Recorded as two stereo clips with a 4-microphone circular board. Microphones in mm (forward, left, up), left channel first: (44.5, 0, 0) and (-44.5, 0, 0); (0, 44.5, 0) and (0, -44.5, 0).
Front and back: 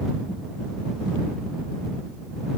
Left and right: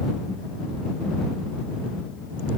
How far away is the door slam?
No door slam in this recording.